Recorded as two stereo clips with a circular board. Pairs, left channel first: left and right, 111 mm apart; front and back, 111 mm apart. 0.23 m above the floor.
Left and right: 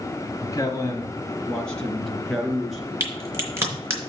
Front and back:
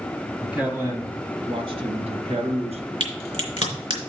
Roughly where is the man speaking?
Left.